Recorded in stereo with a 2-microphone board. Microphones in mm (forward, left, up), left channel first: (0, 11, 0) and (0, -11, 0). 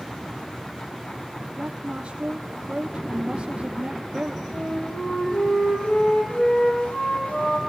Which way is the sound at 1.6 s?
55° right (ahead or behind).